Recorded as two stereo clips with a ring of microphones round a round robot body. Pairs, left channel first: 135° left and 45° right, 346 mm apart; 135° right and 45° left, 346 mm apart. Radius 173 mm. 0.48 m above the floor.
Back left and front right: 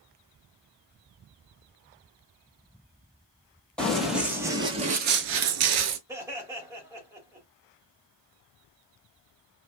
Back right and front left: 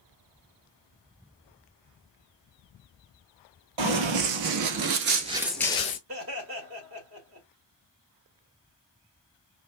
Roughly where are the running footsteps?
Ahead left.